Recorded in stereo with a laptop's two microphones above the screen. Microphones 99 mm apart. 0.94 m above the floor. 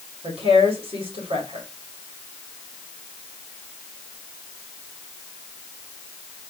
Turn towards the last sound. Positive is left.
turn(degrees=-80)